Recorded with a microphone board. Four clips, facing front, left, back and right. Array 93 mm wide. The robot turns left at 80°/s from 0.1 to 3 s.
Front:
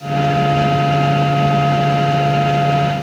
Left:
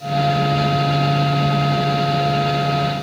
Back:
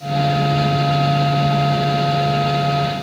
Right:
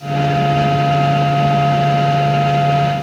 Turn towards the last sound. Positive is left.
No sound to turn to.